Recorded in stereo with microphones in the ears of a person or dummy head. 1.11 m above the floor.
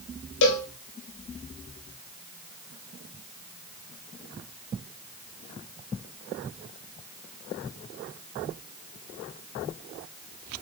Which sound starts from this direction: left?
A cowbell, at 0.4 s.